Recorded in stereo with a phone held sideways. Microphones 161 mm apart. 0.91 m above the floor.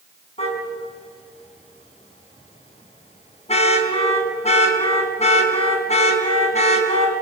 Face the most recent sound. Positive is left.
turn(degrees=40)  # may be behind; listen again after turning